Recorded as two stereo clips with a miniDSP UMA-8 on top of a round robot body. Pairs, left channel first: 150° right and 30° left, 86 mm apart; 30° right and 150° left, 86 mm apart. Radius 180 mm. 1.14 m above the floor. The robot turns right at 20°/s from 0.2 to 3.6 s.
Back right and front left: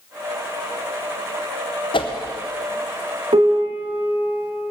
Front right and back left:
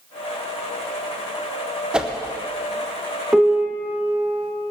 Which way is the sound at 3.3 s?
65° left.